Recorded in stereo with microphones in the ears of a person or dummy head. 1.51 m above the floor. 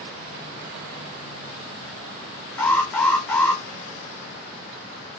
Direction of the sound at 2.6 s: 5° left (ahead or behind).